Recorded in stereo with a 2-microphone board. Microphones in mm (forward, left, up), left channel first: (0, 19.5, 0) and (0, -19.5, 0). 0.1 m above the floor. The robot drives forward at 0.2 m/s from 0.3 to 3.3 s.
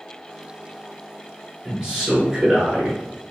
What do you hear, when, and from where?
1.6 s a man speaking: 20° right (ahead or behind), 1.1 m